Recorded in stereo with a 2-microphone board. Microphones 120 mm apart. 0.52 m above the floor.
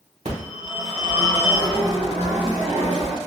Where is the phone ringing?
65° right (ahead or behind), 1.5 m.